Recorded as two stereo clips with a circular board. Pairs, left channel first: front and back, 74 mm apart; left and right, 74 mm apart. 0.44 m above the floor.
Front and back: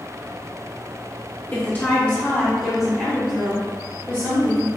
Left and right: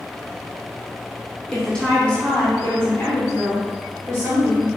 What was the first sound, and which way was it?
A woman speaking, 15° left.